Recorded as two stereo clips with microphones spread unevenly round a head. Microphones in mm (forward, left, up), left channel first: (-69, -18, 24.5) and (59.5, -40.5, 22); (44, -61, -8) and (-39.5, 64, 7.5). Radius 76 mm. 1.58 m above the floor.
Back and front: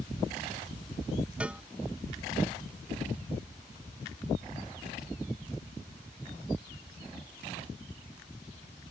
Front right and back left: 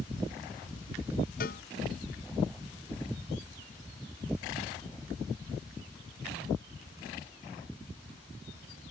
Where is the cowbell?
90° right.